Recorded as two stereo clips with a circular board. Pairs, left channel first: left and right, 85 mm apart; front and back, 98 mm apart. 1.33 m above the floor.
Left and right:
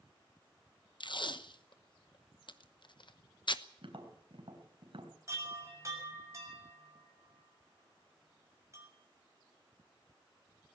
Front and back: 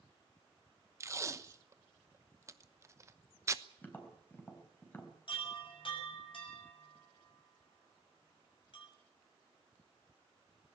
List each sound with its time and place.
1.0 s tape being pulled: 120° left, 1.0 m
3.8 s tapping: 70° right, 4 m
5.3 s a chime: 35° right, 7 m